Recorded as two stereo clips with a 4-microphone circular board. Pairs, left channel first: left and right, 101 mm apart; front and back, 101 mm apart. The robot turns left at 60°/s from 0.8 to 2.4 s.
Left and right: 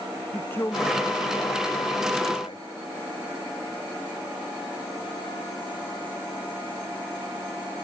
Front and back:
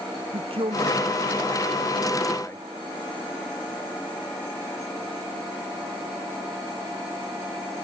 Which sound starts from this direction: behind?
A man speaking, at 0.3 s.